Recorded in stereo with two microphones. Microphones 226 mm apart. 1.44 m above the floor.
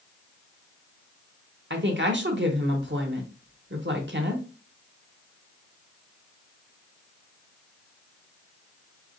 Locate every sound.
1.7 s a woman speaking: 55° right (ahead or behind), 1.1 m